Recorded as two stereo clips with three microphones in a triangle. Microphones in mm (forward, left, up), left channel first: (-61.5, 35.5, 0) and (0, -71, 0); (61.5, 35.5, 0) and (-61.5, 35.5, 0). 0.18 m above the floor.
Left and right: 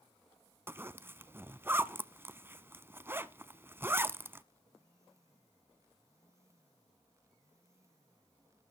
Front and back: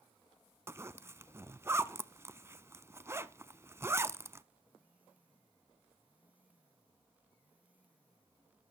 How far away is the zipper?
About 0.7 m.